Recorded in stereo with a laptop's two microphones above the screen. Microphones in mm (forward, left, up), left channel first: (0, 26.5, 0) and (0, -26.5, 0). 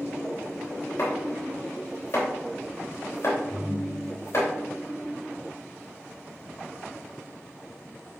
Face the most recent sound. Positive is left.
turn(degrees=40)  # may be behind; listen again after turning